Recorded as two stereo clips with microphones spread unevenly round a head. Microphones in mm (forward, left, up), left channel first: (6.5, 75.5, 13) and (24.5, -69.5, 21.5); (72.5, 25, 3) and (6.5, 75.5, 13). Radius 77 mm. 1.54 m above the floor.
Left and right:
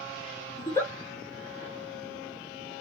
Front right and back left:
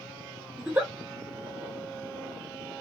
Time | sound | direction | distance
0.6 | a giggle | 160° left | 1.2 m